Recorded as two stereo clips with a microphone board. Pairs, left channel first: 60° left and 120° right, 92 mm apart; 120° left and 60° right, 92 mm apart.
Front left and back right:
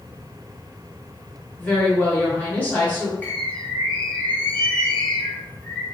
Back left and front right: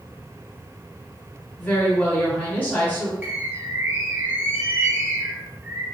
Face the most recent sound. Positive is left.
turn(degrees=0)